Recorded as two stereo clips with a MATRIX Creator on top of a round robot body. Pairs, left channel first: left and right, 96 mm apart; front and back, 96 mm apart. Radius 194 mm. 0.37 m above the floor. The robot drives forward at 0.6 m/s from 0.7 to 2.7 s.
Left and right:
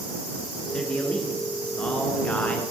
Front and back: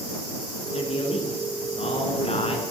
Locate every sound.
0.7 s a man speaking: 10° left, 7 m; by 2.6 s 15° left, 6 m